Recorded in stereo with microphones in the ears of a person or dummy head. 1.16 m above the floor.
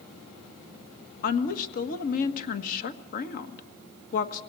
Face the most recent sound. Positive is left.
turn(degrees=45)  # may be behind; listen again after turning